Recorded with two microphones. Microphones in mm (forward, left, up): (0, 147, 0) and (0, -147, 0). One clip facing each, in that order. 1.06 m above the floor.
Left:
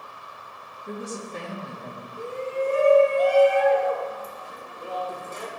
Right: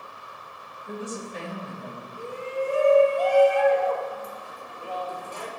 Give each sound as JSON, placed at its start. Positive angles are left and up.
{"t": 0.9, "sound": "a woman speaking", "side_deg": 50, "distance_m": 1.4}
{"t": 2.2, "sound": "a shout", "side_deg": 20, "distance_m": 1.1}